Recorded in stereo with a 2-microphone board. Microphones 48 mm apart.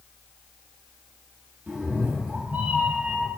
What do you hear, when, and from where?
1.7 s a cat meowing: 10° right (ahead or behind), 2 m; by 3.3 s 35° right (ahead or behind), 2 m